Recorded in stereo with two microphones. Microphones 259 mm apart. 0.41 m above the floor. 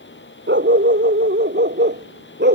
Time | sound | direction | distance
0.5 | a dog barking | 45° right (ahead or behind) | ?